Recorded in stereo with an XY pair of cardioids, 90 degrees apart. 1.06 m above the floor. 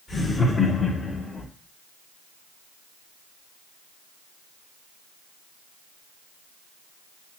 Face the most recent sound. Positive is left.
turn(degrees=75)